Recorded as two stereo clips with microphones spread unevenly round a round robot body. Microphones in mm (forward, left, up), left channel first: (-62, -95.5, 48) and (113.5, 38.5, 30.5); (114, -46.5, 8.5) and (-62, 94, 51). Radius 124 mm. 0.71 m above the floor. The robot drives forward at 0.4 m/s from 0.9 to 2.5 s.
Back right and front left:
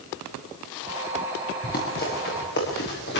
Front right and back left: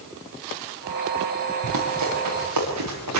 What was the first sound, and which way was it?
Running footsteps, 160° left.